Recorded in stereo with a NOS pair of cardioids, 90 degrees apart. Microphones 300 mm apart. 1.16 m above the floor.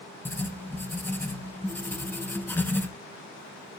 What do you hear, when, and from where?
0.2 s writing: 5° left, 0.9 m